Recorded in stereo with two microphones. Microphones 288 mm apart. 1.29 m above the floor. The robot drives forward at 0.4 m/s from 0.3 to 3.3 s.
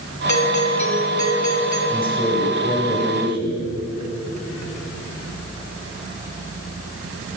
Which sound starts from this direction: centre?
A man speaking, at 1.9 s.